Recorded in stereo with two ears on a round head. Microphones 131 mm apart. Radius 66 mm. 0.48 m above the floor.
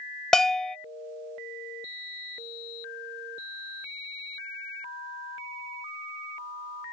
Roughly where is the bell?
Centre.